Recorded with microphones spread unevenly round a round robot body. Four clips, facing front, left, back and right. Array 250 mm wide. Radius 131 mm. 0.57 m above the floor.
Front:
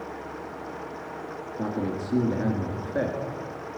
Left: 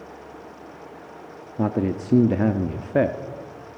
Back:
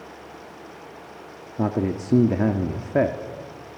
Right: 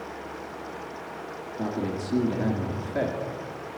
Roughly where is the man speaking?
Behind left.